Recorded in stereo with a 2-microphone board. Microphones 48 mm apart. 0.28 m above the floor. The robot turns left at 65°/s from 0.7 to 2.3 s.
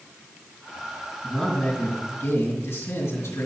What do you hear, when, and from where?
1.2 s a man speaking: straight behind, 2.5 m; by 3.5 s 110° left, 2.5 m